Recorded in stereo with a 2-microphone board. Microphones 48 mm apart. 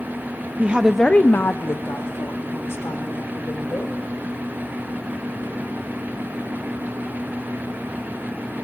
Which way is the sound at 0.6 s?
35° right (ahead or behind).